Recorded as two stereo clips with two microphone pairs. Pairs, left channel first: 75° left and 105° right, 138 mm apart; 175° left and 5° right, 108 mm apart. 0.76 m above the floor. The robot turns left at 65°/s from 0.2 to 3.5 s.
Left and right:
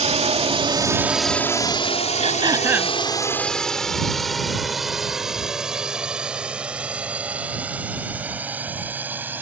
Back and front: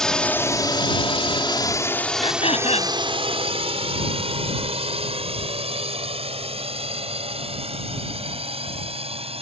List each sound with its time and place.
0.0 s a drone: 105° right; by 9.4 s 30° right
2.2 s throat clearing: 150° right; by 3.0 s 165° left